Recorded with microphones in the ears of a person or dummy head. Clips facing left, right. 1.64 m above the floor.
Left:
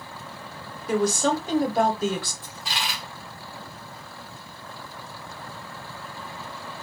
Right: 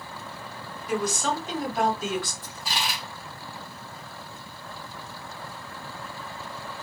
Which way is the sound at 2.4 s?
45° left (ahead or behind).